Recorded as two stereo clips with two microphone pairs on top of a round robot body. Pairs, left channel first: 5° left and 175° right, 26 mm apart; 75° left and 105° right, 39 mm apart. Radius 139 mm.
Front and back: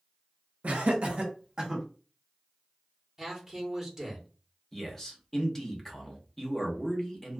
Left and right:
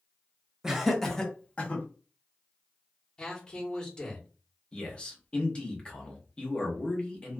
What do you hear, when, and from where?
0.6 s laughter: 170° left, 1.0 m; by 1.8 s 115° left, 1.2 m
3.2 s a man speaking: 115° left, 1.3 m
4.7 s a man speaking: 50° left, 1.2 m